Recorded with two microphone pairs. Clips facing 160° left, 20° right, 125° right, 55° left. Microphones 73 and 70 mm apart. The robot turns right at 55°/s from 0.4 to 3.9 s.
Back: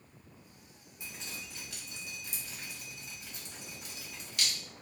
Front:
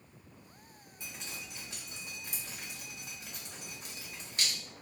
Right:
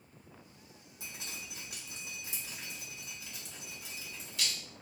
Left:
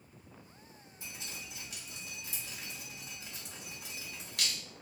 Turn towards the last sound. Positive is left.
turn(degrees=35)